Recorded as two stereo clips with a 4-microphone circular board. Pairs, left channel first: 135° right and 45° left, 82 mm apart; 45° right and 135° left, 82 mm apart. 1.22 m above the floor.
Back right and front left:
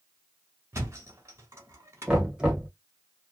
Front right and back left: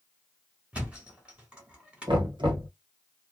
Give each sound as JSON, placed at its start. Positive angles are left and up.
{"t": 0.7, "sound": "a thud", "azimuth_deg": 70, "distance_m": 1.3}
{"t": 2.1, "sound": "knocking", "azimuth_deg": 125, "distance_m": 1.1}